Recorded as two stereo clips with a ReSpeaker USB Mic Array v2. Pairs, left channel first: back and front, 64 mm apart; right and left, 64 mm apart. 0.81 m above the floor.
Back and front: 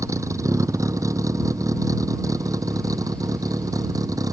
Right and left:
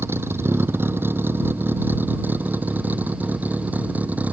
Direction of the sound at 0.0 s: 35° left.